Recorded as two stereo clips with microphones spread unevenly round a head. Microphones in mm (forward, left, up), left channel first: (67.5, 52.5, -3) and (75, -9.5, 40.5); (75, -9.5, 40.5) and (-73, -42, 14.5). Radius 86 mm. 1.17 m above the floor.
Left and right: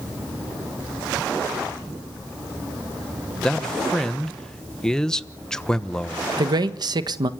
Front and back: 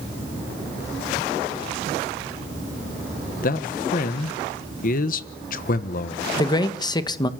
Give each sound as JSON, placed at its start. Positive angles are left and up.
{"t": 3.4, "sound": "a man speaking", "azimuth_deg": 45, "distance_m": 1.2}
{"t": 6.4, "sound": "a man speaking", "azimuth_deg": -55, "distance_m": 1.5}